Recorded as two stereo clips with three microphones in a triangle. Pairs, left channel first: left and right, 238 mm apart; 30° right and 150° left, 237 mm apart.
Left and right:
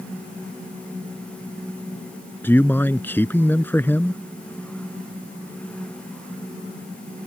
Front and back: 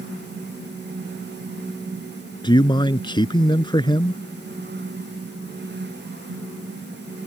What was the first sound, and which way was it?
A man speaking, 15° left.